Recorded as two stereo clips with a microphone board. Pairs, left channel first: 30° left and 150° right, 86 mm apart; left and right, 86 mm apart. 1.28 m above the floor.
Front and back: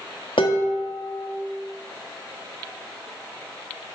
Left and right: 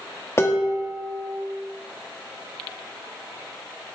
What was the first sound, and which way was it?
Dishes clattering, 30° left.